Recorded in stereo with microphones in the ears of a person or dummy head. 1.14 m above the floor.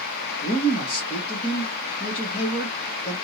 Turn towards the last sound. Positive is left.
turn(degrees=35)  # may be behind; listen again after turning